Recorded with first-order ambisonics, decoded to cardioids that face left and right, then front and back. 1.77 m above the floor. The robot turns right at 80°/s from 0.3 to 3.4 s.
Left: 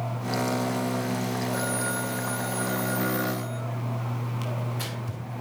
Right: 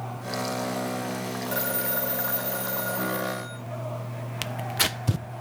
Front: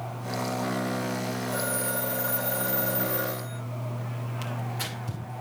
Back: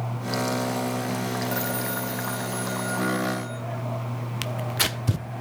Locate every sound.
1.5 s a phone ringing: 130° right, 7.5 m; by 3.6 s 25° left, 7.5 m
4.4 s tearing paper: 130° right, 0.6 m